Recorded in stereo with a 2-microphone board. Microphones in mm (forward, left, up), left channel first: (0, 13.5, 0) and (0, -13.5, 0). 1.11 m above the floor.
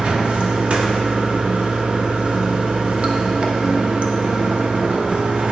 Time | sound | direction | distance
0.0 | running water | 55° right (ahead or behind) | 0.8 m